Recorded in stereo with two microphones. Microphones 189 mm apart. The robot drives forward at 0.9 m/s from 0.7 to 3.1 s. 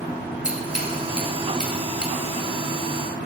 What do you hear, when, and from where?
0.4 s scissors: 5° right (ahead or behind), 4.5 m